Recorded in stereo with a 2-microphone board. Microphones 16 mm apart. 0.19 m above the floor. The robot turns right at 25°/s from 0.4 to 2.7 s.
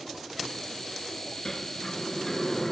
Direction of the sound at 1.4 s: 140° left.